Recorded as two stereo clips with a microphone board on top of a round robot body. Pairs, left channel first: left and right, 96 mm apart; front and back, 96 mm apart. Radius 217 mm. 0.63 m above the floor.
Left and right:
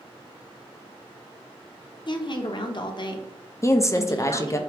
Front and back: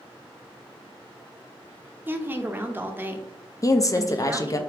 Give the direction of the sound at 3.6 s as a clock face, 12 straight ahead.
11 o'clock.